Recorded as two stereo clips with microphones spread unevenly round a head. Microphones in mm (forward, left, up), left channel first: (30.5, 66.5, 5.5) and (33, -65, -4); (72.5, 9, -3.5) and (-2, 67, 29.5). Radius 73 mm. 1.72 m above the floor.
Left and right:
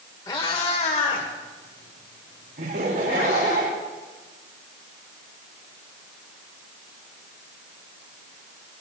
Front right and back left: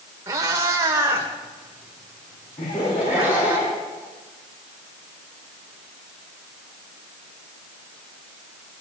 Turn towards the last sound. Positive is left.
turn(degrees=-65)